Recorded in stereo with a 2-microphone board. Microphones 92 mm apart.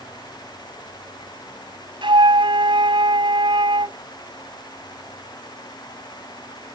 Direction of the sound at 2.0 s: 65° right (ahead or behind).